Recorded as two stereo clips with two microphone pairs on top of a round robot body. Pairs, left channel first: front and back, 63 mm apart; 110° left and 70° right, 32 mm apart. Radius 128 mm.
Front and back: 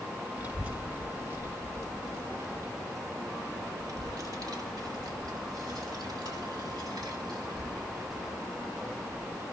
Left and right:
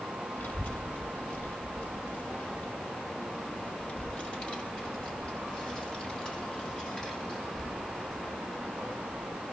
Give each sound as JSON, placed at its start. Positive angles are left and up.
{"t": 0.4, "sound": "a child speaking", "azimuth_deg": 120, "distance_m": 4.5}